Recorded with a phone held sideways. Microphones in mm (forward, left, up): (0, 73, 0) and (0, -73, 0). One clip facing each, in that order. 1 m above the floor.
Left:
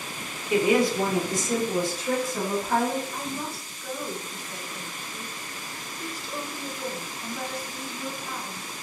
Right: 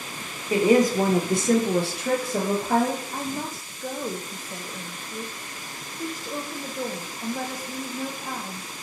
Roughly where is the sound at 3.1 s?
Right.